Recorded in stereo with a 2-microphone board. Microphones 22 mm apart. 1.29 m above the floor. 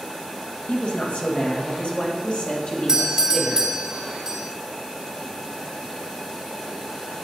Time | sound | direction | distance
0.7 | a woman speaking | 65° left (ahead or behind) | 1.2 m
2.9 | a doorbell | 25° right (ahead or behind) | 0.6 m